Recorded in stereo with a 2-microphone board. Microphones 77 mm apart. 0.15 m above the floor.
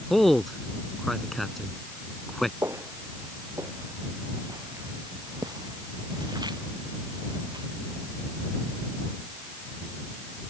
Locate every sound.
0.1 s a man speaking: 5° left (ahead or behind)
2.6 s footsteps: 35° right (ahead or behind); by 7.7 s 65° right (ahead or behind)